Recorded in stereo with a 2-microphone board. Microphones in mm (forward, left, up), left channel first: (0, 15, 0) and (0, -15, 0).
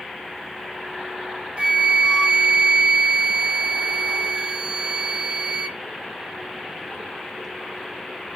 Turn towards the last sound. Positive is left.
turn(degrees=-40)  # may be behind; listen again after turning